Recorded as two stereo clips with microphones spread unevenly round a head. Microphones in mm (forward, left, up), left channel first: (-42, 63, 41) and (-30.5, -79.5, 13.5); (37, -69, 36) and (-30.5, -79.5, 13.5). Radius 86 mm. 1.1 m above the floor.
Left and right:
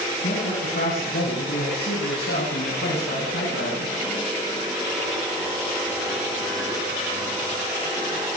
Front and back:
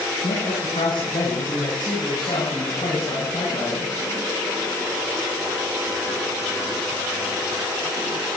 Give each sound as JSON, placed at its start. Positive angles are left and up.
{"t": 0.2, "sound": "a man speaking", "azimuth_deg": 50, "distance_m": 10.0}